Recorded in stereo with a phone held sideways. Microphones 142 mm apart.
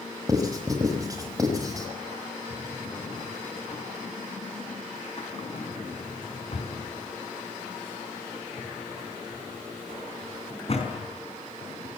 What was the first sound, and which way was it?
Writing, 25° right (ahead or behind).